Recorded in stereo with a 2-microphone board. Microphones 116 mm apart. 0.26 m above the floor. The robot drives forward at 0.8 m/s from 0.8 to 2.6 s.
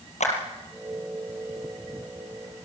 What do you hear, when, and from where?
0.2 s a clap: 75° left (ahead or behind), 5 m